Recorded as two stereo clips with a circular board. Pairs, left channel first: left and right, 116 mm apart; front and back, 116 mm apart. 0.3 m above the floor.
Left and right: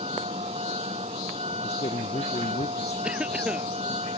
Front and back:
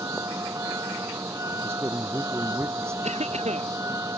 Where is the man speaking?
115° left.